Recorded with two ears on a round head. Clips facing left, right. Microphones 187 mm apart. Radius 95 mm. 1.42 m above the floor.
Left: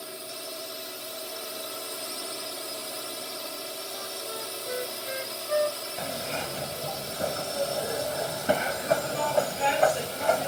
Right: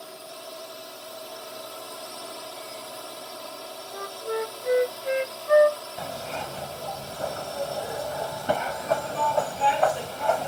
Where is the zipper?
25° left (ahead or behind).